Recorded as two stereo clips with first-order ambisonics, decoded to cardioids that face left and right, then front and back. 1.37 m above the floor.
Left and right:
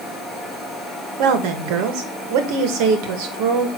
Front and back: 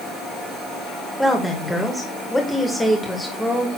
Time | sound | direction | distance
1.2 | a woman speaking | 90° right | 2.0 m